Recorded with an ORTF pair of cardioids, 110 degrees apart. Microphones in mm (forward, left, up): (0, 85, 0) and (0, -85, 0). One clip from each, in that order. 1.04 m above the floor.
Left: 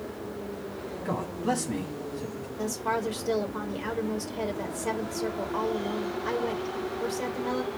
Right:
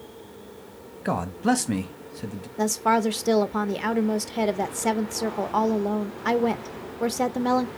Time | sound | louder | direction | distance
1.1 | a man speaking | right 6 dB | 45° right | 1.0 m
2.6 | a woman speaking | right 7 dB | 45° right | 0.6 m